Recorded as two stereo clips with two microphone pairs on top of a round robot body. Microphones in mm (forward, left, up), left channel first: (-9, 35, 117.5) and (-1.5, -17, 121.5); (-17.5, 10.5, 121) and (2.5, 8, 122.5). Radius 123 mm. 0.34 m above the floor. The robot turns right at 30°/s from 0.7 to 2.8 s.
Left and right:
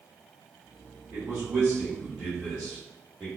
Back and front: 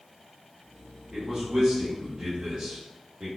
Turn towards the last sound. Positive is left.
turn(degrees=10)